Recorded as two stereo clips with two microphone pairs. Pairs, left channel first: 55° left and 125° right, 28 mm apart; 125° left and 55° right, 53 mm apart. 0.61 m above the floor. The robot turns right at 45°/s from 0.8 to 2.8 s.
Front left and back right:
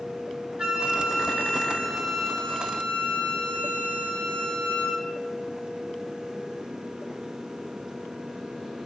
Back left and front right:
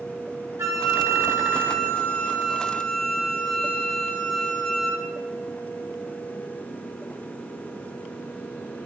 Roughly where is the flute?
Ahead right.